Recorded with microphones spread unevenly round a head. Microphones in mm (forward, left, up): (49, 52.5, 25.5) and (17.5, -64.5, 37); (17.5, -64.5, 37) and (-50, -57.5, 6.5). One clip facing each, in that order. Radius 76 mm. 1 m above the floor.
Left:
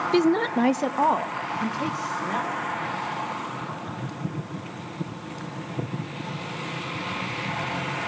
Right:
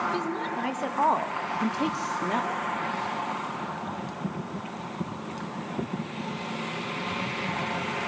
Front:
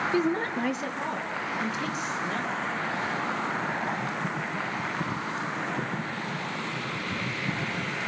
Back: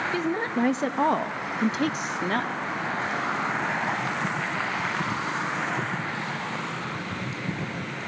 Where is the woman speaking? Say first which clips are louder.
Left 9 dB, even; 85° left, 0.9 m; by 2.5 s 165° right, 1.9 m.